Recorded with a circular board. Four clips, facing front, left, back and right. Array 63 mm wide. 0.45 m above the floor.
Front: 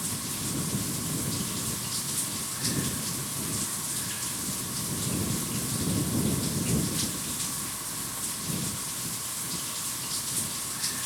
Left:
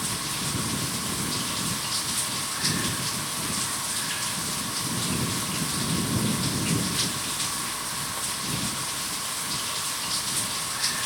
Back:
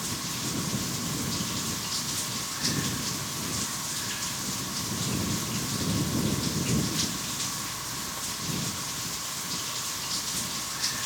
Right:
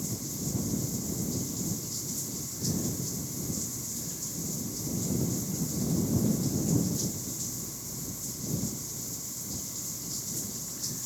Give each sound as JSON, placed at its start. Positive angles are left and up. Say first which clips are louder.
{"t": 0.0, "sound": "running water", "louder": "left 5 dB, back 2 dB", "azimuth_deg": 100}